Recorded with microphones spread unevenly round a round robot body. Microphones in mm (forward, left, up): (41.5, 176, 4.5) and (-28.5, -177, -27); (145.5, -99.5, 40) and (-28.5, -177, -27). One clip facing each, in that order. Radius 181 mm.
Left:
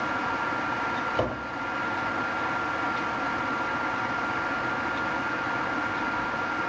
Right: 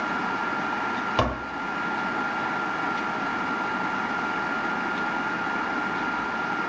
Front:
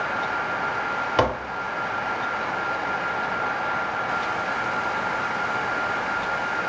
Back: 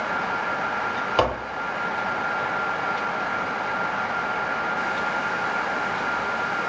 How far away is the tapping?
About 1.0 m.